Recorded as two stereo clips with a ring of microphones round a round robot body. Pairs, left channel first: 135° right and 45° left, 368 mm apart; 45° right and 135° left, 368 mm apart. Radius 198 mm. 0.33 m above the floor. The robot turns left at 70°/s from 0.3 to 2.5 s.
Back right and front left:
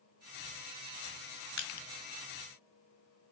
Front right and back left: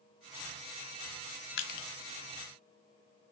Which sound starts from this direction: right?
Crushing, at 1.6 s.